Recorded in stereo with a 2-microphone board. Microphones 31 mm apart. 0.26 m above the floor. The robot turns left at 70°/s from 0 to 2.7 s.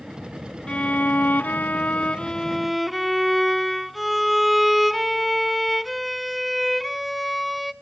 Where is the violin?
140° left, 0.6 m; by 7.7 s straight ahead, 0.6 m.